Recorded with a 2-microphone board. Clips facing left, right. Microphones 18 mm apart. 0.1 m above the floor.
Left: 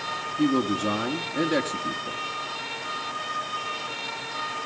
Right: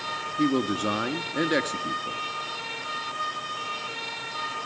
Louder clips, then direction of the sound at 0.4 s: Left 1 dB; 20° right (ahead or behind).